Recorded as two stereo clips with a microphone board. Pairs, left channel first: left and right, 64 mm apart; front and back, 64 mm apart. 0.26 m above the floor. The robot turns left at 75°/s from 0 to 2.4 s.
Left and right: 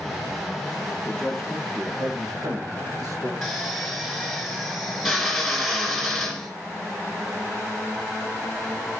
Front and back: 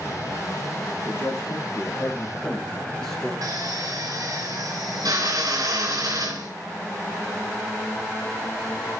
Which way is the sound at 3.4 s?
Straight behind.